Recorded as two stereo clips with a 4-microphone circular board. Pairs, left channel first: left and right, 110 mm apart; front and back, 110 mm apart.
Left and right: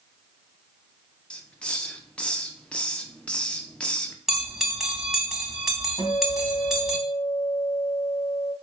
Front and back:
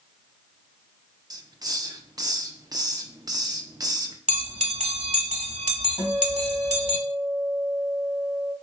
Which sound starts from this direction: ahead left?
A guitar, at 6.0 s.